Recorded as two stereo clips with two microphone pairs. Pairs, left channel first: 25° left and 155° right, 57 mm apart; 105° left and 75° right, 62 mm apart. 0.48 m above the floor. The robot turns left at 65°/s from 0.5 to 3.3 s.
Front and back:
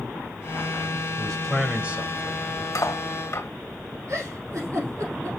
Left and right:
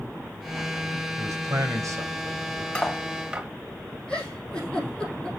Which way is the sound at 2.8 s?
35° left.